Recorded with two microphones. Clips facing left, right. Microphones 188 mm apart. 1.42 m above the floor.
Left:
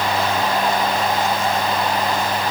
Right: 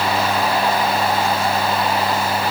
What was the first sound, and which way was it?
Only background noise.